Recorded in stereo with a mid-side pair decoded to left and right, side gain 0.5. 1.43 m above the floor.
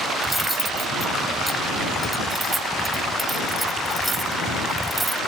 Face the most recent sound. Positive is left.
turn(degrees=-10)